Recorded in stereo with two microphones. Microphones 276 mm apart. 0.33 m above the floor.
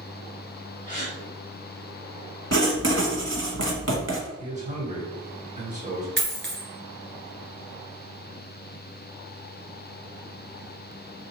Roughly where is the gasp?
Left.